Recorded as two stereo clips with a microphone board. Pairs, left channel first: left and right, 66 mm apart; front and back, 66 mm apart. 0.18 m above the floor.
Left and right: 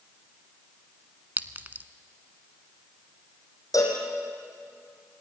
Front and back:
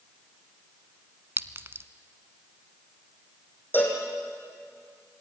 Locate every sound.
1.4 s a clink: 140° right, 0.8 m
3.7 s a cowbell: 60° left, 4.5 m